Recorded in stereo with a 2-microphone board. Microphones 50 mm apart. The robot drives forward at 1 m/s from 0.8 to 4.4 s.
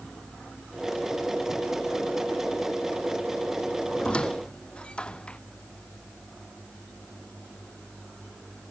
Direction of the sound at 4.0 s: 20° left (ahead or behind).